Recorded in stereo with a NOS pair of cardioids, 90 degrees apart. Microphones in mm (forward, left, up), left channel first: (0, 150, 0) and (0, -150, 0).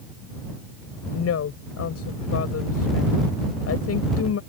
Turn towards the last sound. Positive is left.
turn(degrees=55)